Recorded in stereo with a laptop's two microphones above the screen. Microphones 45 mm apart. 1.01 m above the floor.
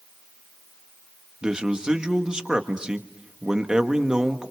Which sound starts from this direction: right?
A man speaking, at 1.4 s.